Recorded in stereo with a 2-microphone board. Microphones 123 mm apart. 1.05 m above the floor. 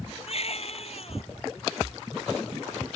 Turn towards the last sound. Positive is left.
turn(degrees=55)  # may be behind; listen again after turning